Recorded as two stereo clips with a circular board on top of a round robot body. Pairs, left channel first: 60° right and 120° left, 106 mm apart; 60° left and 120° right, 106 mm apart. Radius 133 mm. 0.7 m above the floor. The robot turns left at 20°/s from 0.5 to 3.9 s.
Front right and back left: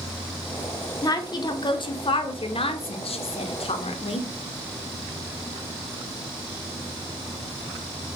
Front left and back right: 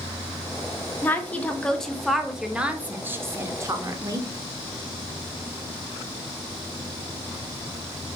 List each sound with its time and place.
1.0 s a woman speaking: 10° right, 0.9 m; by 4.3 s 65° right, 0.9 m